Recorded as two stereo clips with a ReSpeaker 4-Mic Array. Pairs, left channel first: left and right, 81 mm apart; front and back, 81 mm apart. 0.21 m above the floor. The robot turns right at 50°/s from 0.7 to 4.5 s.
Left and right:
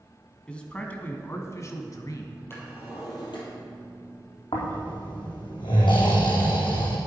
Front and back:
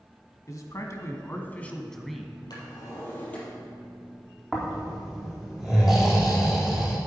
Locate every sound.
0.5 s a man speaking: 20° left, 1.6 m; by 2.4 s 105° left, 1.6 m
2.5 s a drawer: 30° left, 4 m; by 3.4 s 80° left, 4 m
4.5 s snoring: 95° left, 4 m